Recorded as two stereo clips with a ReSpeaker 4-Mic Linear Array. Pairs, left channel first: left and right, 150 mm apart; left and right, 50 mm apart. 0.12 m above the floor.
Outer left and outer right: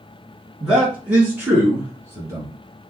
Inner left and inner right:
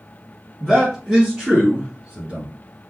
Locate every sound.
0.6 s a man speaking: 5° right (ahead or behind), 1.4 m; by 2.5 s 20° right (ahead or behind), 1.5 m